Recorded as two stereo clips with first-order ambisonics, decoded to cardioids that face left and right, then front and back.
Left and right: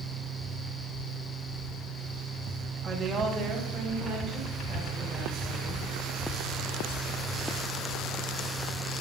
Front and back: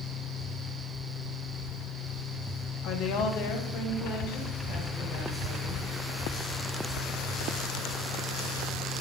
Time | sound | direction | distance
2.8 | a woman speaking | 25° right | 0.9 m